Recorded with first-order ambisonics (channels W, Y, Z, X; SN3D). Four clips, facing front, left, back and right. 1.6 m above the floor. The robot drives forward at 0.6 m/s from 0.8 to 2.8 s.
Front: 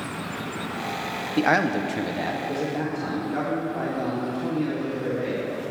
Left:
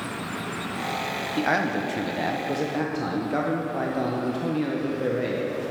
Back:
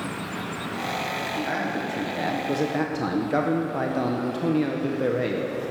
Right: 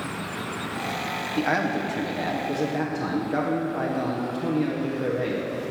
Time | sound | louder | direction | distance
1.4 | a man speaking | even, front 10 dB | 10° left | 0.7 m